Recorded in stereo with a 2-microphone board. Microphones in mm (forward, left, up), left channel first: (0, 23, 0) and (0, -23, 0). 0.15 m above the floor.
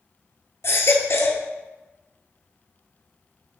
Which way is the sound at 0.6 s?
70° left (ahead or behind).